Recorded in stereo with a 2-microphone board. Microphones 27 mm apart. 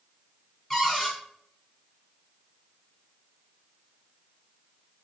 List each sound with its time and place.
0.7 s a cupboard door: 10° left (ahead or behind), 1.3 m